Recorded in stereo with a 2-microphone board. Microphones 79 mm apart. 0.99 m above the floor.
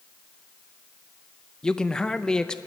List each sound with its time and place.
1.6 s a man speaking: 10° left (ahead or behind), 0.5 m